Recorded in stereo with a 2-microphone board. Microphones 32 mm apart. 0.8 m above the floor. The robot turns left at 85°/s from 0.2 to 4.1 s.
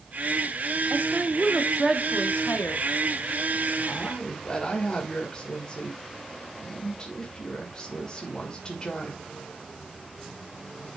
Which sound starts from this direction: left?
A woman speaking, at 3.9 s.